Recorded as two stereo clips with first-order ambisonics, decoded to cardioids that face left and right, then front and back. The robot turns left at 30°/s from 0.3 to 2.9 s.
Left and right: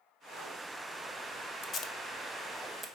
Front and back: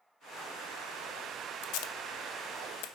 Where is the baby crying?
I don't hear a baby crying.